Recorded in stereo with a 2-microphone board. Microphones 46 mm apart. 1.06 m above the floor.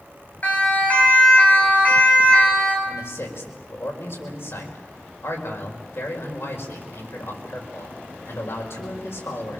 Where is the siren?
40° left (ahead or behind), 7.5 m; by 2.8 s 30° left (ahead or behind), 8.5 m.